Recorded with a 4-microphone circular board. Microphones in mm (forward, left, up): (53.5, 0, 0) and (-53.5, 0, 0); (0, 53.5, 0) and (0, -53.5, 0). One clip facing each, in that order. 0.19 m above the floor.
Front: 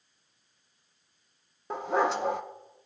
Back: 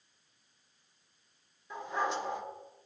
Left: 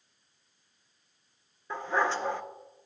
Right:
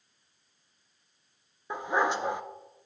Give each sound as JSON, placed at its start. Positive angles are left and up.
{"t": 1.7, "sound": "a dog barking", "azimuth_deg": -15, "distance_m": 0.6}